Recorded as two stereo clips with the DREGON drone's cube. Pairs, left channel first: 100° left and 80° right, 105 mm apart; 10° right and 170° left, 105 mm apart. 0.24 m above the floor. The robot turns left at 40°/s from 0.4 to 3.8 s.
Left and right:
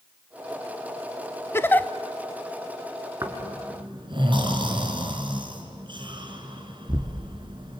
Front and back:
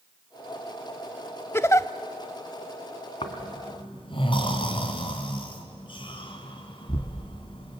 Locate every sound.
1.5 s a giggle: 45° left, 0.6 m; by 1.9 s 35° left, 0.6 m
3.2 s snoring: 20° right, 2.5 m; by 7.8 s 45° right, 2.5 m